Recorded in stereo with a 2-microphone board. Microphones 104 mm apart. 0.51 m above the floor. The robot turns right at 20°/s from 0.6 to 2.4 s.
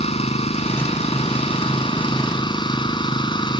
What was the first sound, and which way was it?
An engine running, 95° left.